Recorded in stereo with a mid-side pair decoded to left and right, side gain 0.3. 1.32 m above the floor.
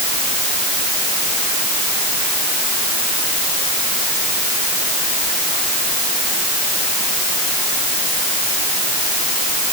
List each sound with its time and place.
Only background noise.